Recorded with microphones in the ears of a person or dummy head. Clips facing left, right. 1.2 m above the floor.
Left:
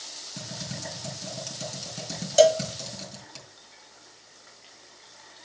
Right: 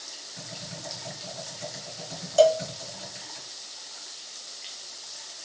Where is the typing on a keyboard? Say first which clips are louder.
Left 4 dB; 55° left (ahead or behind), 4 m.